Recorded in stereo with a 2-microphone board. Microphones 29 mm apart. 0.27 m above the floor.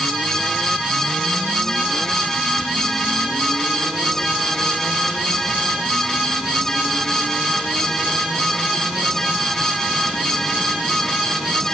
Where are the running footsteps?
I don't hear running footsteps.